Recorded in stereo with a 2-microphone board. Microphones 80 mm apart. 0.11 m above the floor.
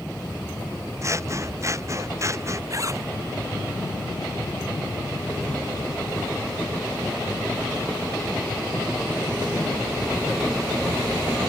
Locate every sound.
1.0 s scissors: 40° right (ahead or behind)
2.7 s a zipper: 40° right (ahead or behind)